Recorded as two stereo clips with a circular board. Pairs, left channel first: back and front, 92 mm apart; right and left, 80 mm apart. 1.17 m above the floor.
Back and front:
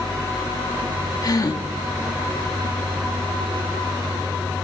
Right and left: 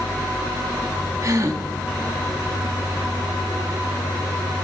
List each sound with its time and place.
1.2 s a gasp: 135° left, 1.4 m